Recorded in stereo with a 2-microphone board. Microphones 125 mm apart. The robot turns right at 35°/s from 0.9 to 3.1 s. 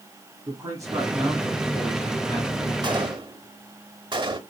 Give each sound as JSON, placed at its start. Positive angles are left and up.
{"t": 0.5, "sound": "a man speaking", "azimuth_deg": -30, "distance_m": 2.5}
{"t": 2.8, "sound": "a gunshot", "side_deg": -35, "distance_m": 1.0}